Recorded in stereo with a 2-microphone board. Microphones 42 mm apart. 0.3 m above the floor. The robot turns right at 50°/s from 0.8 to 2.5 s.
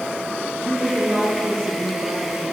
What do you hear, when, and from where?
0.6 s a woman speaking: 150° right, 5.5 m; by 2.5 s 65° right, 5.5 m